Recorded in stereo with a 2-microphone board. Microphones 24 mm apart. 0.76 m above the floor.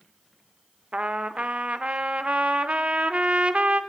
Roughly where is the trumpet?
Right.